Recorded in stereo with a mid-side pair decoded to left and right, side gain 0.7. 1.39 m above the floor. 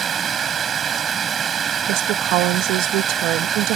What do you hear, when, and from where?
0.0 s running water: 35° right
1.9 s a woman speaking: 65° right